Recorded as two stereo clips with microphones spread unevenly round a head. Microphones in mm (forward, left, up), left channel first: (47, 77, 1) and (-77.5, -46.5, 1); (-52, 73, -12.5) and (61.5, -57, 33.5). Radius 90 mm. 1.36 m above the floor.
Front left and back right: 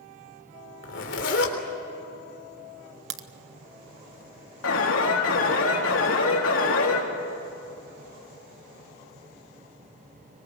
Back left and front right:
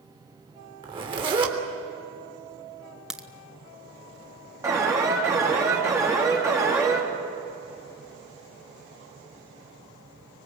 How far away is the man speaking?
I don't hear a man speaking.